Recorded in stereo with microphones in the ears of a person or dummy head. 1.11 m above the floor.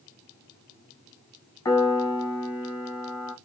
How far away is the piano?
About 0.9 m.